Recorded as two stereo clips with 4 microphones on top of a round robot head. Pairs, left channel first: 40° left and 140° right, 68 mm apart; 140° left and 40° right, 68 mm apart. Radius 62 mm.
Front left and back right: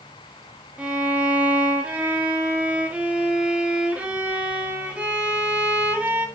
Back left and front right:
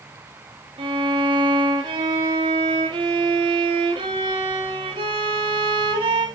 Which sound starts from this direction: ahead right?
A violin, at 0.8 s.